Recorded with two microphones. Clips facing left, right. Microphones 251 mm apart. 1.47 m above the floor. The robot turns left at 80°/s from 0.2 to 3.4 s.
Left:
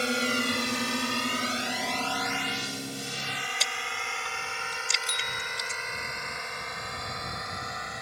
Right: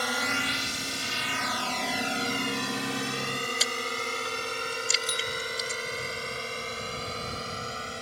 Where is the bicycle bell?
30° left (ahead or behind).